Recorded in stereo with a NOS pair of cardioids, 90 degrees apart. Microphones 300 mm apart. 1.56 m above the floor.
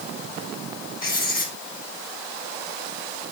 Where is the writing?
30° left, 4 m.